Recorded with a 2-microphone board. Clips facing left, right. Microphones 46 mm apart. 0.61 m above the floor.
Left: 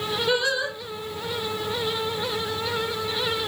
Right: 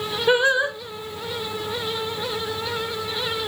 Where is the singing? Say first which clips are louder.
Right 7 dB; 30° right (ahead or behind), 0.9 m.